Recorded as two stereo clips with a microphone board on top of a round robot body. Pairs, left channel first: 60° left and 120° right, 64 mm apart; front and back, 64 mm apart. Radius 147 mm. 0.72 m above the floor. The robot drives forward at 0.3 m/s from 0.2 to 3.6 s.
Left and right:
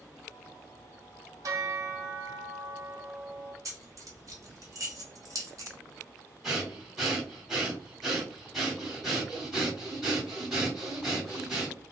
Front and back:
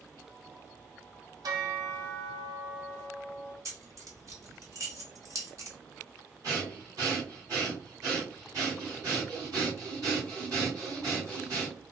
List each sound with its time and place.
1.4 s a bell: 155° right, 0.5 m; by 3.5 s 170° right, 1.1 m
3.6 s keys jangling: 145° right, 1.1 m
6.4 s breathing: 150° left, 2 m